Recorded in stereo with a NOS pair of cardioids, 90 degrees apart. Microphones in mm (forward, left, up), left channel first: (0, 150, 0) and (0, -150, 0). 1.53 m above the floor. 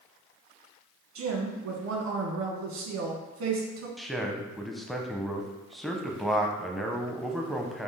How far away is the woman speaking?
About 1.5 m.